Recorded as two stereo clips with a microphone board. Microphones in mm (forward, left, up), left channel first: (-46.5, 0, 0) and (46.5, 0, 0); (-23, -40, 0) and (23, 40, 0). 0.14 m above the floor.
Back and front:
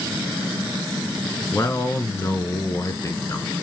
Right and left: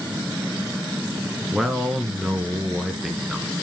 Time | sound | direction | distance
1.5 | a man speaking | 145° left | 1.3 m